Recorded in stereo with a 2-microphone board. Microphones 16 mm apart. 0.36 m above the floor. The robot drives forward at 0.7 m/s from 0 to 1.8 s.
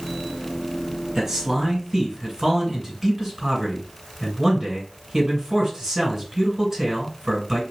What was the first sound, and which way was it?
A man speaking, 25° right (ahead or behind).